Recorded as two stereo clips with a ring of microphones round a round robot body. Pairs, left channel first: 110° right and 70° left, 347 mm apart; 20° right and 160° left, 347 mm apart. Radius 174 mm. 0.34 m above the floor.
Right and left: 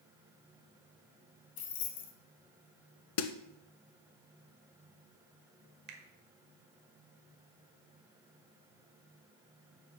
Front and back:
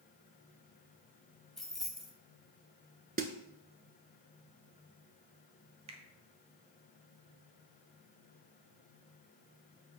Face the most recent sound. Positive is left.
turn(degrees=100)